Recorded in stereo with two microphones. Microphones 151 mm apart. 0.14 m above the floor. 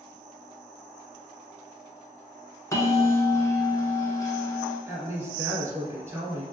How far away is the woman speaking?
About 1.6 m.